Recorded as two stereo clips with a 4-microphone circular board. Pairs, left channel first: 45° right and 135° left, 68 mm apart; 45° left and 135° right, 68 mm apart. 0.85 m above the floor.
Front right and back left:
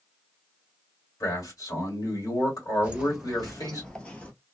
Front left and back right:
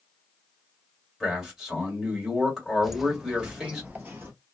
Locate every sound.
1.2 s a man speaking: 50° right, 2 m
2.8 s footsteps: 145° left, 0.8 m; by 4.3 s 100° right, 1.0 m